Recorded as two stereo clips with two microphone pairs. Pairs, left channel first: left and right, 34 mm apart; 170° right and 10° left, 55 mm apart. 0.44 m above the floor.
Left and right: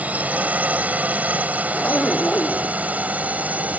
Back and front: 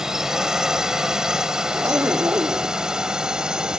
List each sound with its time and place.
0.0 s a drone: 70° right; by 3.8 s 65° right
1.7 s a zipper: 45° left